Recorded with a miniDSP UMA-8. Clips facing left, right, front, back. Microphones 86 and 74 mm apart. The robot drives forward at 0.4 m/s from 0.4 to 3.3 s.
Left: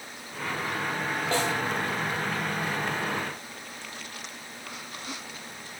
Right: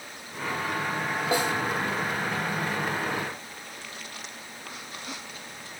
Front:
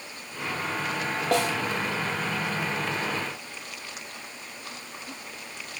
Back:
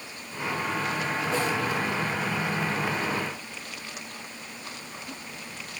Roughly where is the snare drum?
Ahead.